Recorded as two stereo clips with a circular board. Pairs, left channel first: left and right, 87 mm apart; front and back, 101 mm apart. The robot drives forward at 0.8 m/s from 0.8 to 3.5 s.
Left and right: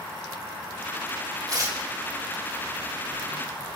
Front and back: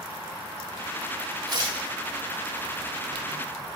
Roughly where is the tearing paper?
Behind right.